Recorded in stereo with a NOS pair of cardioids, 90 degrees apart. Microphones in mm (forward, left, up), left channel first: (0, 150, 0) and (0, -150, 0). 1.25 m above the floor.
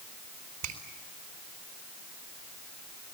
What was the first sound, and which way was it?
A finger snap, 65° right.